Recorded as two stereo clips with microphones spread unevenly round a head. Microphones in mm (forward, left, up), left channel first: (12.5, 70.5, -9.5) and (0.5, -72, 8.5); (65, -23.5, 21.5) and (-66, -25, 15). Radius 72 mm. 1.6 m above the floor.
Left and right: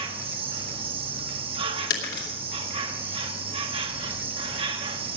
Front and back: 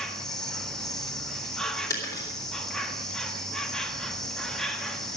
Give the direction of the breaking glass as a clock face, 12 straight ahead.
10 o'clock.